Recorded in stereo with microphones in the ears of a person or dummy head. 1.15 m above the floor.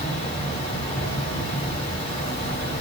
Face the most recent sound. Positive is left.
turn(degrees=40)  # may be behind; listen again after turning